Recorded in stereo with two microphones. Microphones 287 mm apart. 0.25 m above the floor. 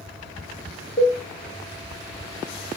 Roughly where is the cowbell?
Left.